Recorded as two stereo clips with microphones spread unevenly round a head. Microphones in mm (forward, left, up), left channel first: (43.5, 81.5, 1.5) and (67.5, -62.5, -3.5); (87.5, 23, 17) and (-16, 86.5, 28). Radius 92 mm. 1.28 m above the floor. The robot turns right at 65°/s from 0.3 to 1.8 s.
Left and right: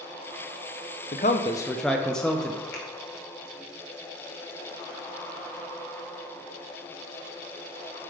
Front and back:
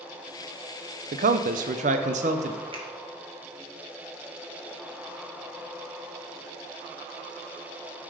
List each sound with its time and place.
1.1 s a man speaking: 140° left, 0.5 m; by 2.6 s 175° right, 0.5 m
2.7 s a finger snap: 100° left, 1.7 m